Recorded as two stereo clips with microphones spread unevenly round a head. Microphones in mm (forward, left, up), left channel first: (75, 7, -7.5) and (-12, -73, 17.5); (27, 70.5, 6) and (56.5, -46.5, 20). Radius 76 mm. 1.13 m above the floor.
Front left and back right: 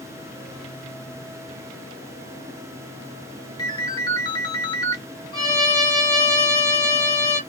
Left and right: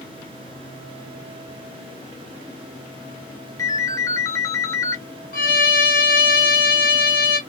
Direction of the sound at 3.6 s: 65° left.